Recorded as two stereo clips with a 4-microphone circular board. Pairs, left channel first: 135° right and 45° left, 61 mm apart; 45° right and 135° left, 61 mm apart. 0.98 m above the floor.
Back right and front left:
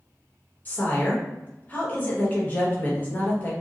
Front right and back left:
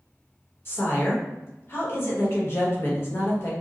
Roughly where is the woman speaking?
Right.